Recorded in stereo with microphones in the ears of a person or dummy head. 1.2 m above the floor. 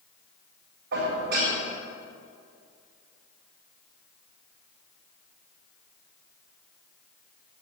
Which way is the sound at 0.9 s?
70° right (ahead or behind).